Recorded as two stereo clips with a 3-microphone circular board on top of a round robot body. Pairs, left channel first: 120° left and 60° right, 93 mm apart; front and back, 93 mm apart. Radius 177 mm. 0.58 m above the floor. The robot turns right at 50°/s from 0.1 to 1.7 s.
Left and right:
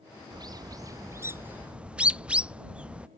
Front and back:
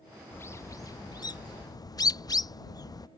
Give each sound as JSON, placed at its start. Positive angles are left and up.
{"t": 0.3, "sound": "a bird", "azimuth_deg": -55}